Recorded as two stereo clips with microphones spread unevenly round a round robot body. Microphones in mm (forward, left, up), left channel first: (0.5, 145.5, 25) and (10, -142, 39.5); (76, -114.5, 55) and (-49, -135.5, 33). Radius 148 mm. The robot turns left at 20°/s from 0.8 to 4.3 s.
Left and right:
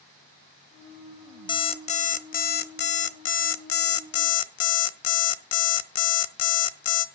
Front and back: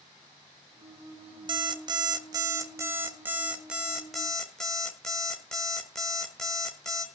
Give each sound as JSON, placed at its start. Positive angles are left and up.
{"t": 1.5, "sound": "an alarm clock", "azimuth_deg": 160, "distance_m": 0.8}